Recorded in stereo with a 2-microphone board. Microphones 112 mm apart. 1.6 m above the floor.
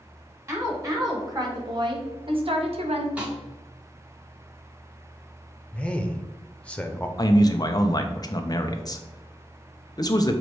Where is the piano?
No piano in this recording.